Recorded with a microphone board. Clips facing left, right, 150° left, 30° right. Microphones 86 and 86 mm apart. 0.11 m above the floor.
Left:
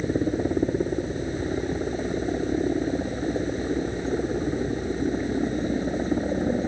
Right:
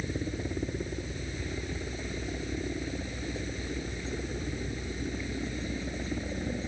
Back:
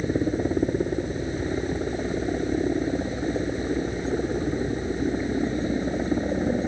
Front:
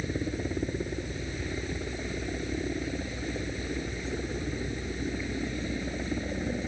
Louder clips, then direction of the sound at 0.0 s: Left 11 dB, back 8 dB; 110° left.